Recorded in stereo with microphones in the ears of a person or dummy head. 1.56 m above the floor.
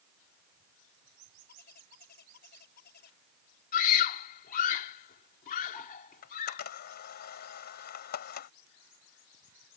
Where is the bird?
55° left (ahead or behind).